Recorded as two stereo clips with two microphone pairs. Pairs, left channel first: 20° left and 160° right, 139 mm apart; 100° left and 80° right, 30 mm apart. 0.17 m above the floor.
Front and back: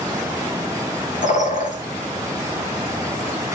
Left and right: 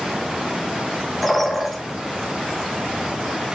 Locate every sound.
1.2 s a bird: 20° left, 1.0 m